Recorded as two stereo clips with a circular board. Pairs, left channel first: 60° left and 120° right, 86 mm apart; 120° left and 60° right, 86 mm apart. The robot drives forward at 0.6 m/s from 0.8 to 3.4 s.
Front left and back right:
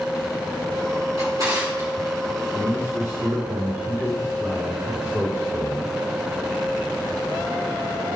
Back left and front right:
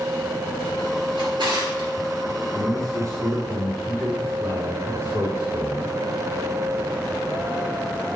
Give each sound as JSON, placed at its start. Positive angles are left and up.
{"t": 1.2, "sound": "a drawer", "azimuth_deg": -75, "distance_m": 2.5}
{"t": 2.5, "sound": "a man speaking", "azimuth_deg": -75, "distance_m": 2.5}